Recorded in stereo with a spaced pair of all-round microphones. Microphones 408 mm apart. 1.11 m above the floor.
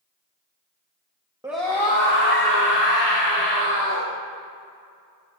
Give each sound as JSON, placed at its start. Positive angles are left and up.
{"t": 1.4, "sound": "a scream", "side_deg": -10, "distance_m": 1.0}